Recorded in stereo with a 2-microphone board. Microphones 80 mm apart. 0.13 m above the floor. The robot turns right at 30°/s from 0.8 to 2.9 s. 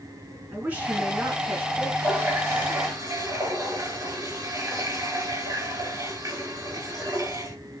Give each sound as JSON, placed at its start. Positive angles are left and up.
{"t": 0.5, "sound": "a woman speaking", "side_deg": -20, "distance_m": 1.6}
{"t": 2.0, "sound": "a running tap", "side_deg": -30, "distance_m": 1.5}